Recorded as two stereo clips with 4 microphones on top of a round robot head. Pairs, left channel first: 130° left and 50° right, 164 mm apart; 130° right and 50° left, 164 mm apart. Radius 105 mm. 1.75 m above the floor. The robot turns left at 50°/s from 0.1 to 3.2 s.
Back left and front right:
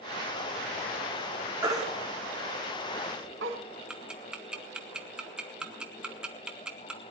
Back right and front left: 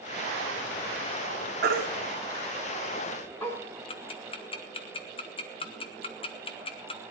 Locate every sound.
1.6 s a baby crying: 25° left, 2 m; by 3.6 s 55° right, 2 m
3.9 s ticking: 130° right, 0.7 m